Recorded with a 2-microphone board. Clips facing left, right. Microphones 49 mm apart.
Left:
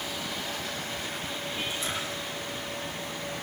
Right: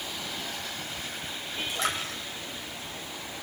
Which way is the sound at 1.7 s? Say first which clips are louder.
Right 2 dB; 85° right.